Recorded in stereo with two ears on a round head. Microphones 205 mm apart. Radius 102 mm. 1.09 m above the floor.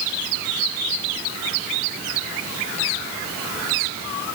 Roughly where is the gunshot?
No gunshot in this recording.